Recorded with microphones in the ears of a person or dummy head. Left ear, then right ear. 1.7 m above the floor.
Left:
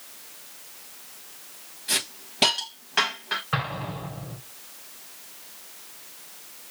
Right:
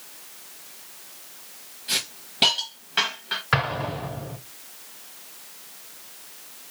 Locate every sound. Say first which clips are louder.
1.9 s a hiss: right 1 dB; 10° left (ahead or behind), 1.3 m
3.5 s an explosion: right 5 dB; 65° right (ahead or behind), 3 m